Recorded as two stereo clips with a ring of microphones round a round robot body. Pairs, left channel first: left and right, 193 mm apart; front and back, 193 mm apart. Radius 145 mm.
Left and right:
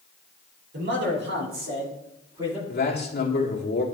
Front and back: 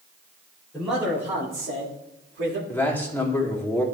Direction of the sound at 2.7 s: 80° left.